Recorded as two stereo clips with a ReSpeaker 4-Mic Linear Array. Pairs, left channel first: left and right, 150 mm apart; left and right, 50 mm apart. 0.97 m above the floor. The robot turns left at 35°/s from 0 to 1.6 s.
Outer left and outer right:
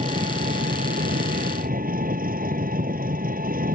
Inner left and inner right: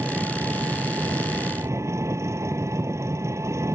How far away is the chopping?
I don't hear chopping.